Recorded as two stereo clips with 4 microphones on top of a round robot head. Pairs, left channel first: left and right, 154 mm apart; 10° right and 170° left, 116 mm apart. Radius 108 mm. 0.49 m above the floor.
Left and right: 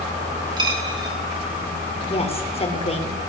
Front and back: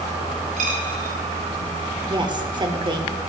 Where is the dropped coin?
150° right, 3 m.